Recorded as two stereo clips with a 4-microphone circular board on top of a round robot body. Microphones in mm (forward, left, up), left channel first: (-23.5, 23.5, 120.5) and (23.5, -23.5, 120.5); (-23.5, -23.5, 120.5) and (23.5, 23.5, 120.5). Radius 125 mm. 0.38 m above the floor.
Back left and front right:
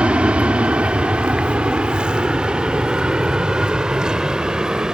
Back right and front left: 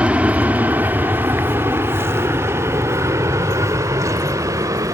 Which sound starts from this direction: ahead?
An aircraft, at 0.0 s.